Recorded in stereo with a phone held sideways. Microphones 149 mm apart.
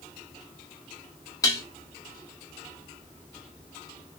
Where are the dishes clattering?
20° left (ahead or behind), 1.4 m.